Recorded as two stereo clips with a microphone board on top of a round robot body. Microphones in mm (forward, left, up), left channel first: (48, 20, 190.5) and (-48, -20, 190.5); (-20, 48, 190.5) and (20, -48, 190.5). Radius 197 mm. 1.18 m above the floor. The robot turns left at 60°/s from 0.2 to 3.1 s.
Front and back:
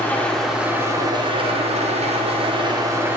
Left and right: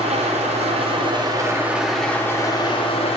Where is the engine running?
55° right, 0.9 m; by 3.2 s 130° left, 0.9 m.